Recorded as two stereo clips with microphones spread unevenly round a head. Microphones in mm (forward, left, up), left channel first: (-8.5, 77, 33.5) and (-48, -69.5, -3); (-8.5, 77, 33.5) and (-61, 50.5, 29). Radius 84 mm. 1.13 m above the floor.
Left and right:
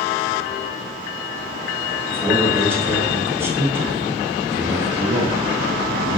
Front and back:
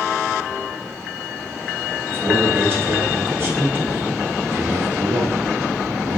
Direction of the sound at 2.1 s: 155° right.